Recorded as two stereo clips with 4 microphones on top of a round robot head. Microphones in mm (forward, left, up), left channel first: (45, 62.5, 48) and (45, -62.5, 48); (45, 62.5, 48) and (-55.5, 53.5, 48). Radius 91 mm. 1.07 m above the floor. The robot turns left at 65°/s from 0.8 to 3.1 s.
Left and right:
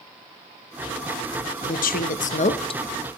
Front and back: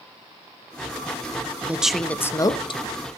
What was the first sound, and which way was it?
A woman speaking, 115° left.